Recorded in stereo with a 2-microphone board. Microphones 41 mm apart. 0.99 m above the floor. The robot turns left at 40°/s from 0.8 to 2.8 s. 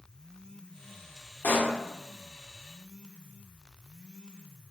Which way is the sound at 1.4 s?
55° left (ahead or behind).